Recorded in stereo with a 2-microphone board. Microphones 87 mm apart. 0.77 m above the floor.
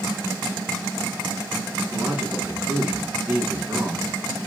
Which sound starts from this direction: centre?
A man speaking, at 1.9 s.